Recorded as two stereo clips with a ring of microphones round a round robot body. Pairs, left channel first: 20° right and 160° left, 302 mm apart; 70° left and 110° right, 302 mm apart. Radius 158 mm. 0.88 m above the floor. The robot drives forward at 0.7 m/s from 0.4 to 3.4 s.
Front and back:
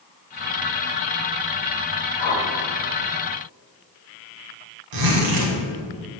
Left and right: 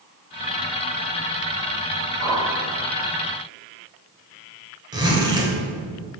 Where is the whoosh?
30° right, 2 m; by 2.5 s 35° right, 2 m.